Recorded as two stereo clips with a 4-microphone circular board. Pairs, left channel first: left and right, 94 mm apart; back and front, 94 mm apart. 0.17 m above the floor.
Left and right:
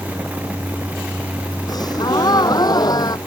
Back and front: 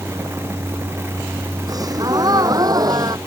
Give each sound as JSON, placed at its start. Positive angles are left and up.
{"t": 1.7, "sound": "a gasp", "azimuth_deg": 45}